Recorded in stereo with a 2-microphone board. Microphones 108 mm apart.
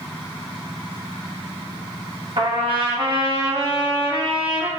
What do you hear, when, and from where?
2.4 s a trumpet: 55° right (ahead or behind), 2.0 m